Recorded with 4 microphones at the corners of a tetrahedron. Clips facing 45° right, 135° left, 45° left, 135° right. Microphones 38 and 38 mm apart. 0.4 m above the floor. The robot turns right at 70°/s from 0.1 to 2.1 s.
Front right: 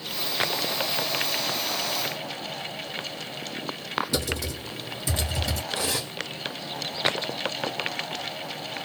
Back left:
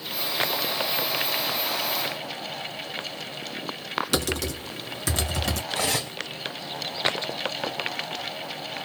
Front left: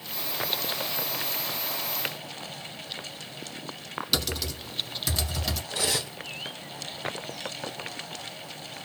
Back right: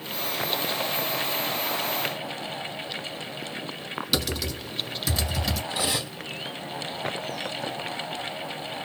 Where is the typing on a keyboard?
140° left, 0.9 m.